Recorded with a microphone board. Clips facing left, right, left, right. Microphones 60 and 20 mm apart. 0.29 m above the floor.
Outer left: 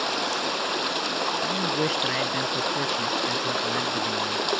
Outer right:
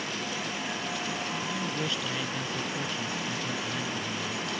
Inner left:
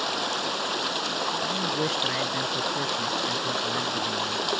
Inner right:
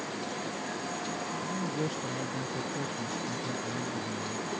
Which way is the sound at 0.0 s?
75° left (ahead or behind).